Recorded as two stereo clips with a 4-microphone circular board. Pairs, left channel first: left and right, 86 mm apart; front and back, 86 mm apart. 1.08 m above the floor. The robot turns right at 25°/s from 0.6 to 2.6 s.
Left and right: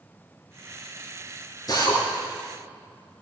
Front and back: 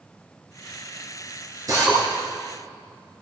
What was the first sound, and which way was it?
A drill, 135° left.